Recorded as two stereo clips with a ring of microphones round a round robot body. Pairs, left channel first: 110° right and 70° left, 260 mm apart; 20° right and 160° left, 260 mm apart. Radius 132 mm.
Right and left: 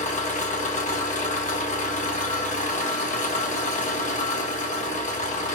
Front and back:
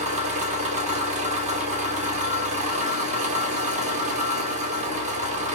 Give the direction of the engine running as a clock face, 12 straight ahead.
5 o'clock.